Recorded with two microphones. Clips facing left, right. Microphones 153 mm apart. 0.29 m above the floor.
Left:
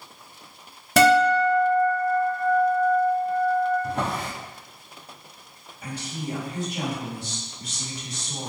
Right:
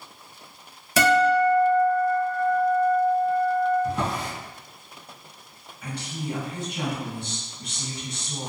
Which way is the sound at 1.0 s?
60° left (ahead or behind).